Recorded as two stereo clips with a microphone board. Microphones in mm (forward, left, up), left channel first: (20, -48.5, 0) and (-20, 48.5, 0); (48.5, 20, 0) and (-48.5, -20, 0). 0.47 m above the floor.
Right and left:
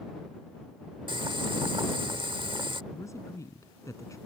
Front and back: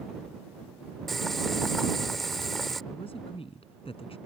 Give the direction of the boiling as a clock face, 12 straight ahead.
8 o'clock.